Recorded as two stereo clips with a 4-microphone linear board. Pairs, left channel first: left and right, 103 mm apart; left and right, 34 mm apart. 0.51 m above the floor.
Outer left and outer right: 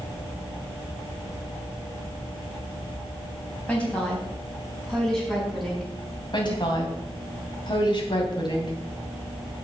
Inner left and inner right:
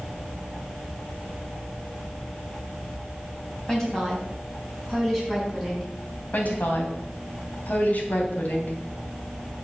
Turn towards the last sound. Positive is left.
turn(degrees=50)  # may be behind; listen again after turning